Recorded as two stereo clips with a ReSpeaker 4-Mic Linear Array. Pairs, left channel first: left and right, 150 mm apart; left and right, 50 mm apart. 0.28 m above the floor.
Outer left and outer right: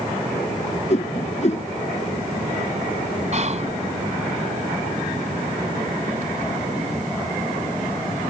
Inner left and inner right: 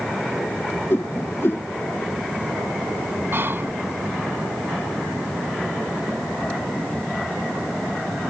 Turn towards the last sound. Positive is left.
turn(degrees=-50)  # may be behind; listen again after turning